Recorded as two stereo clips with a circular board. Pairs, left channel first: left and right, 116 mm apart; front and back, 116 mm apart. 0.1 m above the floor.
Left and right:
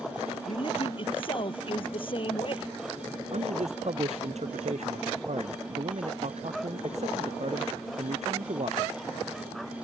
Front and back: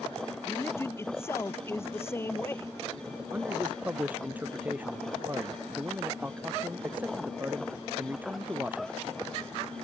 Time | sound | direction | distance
0.5 | a man speaking | 65° left | ?
3.3 | a man speaking | 105° right | ?